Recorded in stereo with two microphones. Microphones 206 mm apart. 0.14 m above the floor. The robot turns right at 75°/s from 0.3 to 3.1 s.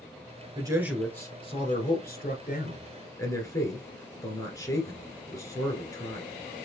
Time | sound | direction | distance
0.6 | a man speaking | 30° right | 1.5 m